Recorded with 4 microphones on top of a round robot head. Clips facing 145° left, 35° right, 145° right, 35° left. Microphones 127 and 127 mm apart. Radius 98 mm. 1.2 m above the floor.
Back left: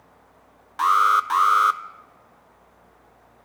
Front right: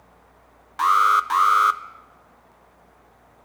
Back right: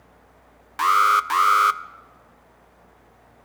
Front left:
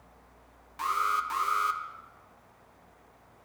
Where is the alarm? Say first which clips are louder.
Front right 1 dB, back right 11 dB; 130° right, 0.5 m.